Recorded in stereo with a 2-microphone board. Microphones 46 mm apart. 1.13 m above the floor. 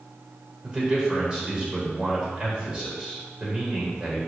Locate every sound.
0.6 s a man speaking: 20° right (ahead or behind), 4 m